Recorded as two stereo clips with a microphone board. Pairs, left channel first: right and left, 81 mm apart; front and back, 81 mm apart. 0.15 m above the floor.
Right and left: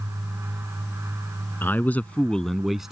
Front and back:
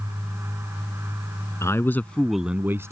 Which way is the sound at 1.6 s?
35° right.